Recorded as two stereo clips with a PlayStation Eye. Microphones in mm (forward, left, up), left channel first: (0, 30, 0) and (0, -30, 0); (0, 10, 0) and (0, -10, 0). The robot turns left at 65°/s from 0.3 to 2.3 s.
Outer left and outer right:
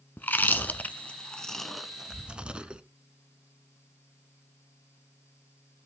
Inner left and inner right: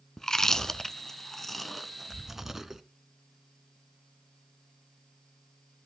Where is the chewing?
30° left (ahead or behind), 0.8 m; by 2.8 s 15° right (ahead or behind), 0.8 m.